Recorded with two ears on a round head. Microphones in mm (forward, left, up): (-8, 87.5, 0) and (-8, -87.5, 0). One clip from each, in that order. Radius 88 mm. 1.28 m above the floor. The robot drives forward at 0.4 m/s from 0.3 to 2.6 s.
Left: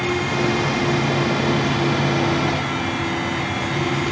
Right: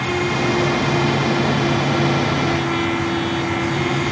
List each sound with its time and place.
Only background noise.